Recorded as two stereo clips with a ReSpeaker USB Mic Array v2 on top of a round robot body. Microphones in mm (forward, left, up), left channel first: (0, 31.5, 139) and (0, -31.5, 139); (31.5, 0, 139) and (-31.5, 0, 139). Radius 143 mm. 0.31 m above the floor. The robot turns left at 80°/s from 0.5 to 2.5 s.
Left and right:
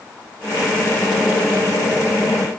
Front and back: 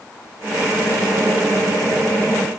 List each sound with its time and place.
Only background noise.